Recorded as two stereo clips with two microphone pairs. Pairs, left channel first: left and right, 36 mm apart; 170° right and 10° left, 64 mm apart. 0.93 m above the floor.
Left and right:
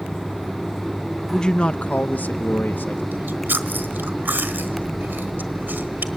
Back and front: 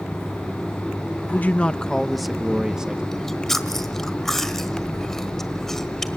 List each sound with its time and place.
1.3 s a man speaking: 155° left, 0.7 m; by 3.0 s 85° left, 1.6 m
3.1 s chewing: 85° right, 1.3 m